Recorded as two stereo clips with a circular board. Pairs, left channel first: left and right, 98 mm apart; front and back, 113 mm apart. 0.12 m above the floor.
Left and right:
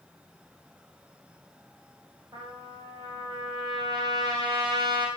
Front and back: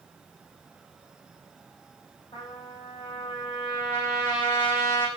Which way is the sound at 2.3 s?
40° right.